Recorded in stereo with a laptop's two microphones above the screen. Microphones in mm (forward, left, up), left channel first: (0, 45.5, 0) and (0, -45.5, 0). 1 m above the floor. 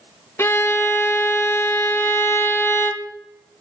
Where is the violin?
30° left (ahead or behind), 1.3 m.